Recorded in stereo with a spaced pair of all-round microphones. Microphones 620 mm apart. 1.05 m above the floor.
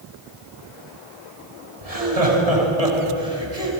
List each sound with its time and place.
1.8 s laughter: 75° right (ahead or behind), 8.5 m